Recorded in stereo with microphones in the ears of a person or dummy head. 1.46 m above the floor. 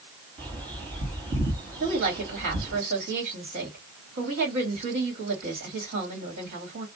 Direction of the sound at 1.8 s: 55° right (ahead or behind).